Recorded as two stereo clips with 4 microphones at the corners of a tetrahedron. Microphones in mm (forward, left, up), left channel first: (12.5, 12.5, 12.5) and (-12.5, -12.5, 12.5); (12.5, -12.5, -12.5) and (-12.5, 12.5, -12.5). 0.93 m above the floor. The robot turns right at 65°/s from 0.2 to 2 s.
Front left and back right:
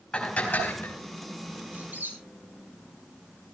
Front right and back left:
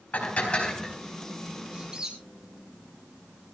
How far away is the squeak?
About 8.5 m.